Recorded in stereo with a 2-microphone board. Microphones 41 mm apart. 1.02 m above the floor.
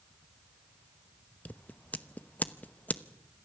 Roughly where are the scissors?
Left.